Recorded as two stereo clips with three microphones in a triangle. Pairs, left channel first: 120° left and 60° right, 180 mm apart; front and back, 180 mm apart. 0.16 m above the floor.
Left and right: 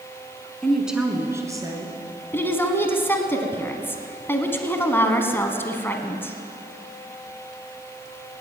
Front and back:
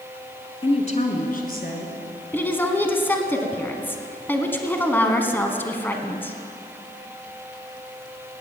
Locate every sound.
0.6 s a woman speaking: 35° left, 1.3 m; by 2.0 s 5° left, 2 m
2.3 s a woman speaking: 60° left, 1.1 m